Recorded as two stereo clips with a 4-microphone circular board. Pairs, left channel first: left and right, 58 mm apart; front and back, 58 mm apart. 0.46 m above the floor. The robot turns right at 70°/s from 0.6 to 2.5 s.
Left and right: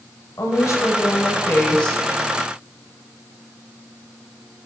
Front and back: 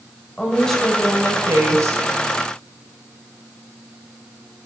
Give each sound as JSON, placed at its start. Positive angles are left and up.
{"t": 0.4, "sound": "a woman speaking", "azimuth_deg": 75, "distance_m": 1.8}